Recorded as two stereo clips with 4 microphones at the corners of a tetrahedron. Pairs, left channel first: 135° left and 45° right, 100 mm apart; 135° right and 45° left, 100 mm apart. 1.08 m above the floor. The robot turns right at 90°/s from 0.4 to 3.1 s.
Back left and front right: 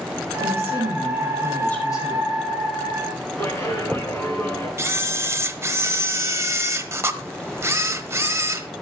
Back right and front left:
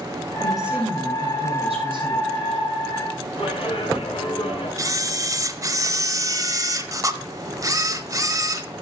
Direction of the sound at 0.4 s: 55° right.